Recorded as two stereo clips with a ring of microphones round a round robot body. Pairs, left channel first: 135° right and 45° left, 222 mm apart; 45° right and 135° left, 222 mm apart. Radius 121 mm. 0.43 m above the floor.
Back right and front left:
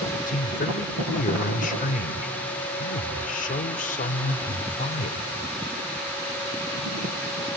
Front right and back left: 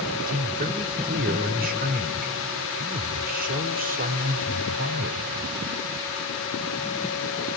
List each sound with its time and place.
0.3 s a man speaking: straight behind, 1.6 m